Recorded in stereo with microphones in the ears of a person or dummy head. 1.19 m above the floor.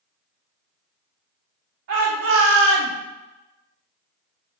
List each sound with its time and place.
1.9 s a shout: 60° right (ahead or behind), 1.0 m; by 2.9 s 45° right (ahead or behind), 0.5 m